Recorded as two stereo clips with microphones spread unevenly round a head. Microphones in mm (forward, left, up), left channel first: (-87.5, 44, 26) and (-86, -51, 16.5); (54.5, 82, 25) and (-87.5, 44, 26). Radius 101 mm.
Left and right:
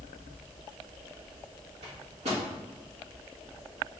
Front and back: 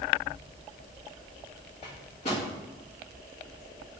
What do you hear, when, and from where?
1.8 s a microwave: 45° right, 1.6 m